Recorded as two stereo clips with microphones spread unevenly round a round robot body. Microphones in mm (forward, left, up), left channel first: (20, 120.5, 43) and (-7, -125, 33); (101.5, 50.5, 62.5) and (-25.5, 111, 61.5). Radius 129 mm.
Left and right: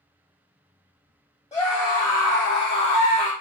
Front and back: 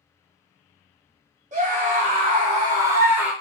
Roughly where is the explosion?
I don't hear an explosion.